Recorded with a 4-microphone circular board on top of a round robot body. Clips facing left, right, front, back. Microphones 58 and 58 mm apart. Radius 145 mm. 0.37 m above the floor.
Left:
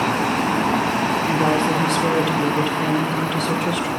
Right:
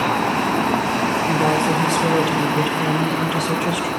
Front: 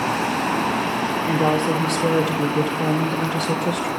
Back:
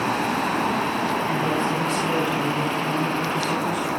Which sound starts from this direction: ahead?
A woman speaking, at 1.3 s.